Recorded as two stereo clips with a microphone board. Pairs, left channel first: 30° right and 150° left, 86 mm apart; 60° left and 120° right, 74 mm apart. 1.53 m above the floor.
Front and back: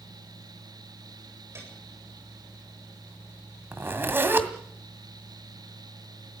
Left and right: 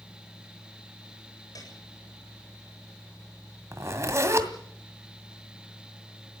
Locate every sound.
1.6 s a piano: 90° left, 8 m
3.7 s a zipper: 155° right, 2 m